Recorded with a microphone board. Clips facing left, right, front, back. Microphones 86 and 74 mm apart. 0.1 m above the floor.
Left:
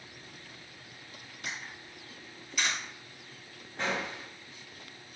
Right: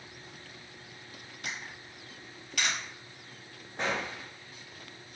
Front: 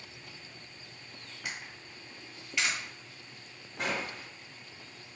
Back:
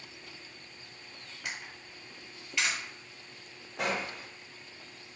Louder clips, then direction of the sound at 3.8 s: Right 1 dB, back 2 dB; 160° right.